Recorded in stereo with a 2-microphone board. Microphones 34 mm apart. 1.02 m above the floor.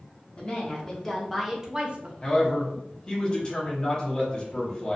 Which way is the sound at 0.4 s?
35° left (ahead or behind).